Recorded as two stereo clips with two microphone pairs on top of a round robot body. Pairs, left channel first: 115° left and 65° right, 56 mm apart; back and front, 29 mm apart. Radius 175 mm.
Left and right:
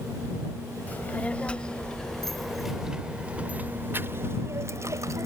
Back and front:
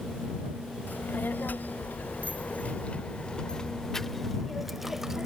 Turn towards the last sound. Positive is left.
turn(degrees=-80)